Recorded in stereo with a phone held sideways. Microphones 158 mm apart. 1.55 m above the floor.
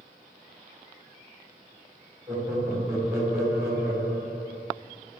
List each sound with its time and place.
2.3 s laughter: 15° right (ahead or behind), 2.5 m